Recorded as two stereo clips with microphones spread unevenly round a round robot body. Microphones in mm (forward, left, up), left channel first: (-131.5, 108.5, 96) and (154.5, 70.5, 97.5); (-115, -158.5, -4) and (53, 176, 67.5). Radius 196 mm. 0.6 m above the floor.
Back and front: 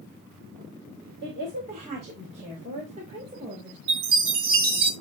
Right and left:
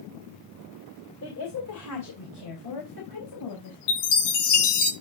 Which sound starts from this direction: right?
A chime, at 3.9 s.